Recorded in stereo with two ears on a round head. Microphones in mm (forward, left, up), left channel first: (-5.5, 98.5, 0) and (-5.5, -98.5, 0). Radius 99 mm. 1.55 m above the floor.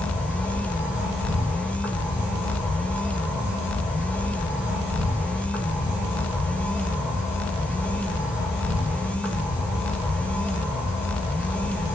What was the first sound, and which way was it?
An insect, 5° right (ahead or behind).